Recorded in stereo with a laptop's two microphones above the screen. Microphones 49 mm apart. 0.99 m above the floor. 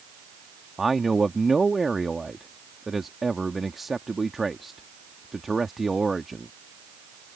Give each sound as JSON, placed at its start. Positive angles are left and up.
{"t": 0.8, "sound": "a man speaking", "side_deg": -5}